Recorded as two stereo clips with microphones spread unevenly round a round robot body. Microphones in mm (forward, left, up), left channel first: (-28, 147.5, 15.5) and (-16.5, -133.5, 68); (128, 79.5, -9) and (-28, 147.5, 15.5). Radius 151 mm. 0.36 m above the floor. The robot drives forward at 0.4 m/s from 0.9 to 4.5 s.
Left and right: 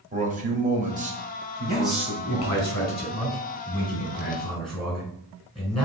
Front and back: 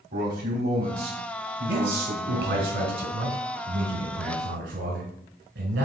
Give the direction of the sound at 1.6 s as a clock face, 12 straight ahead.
6 o'clock.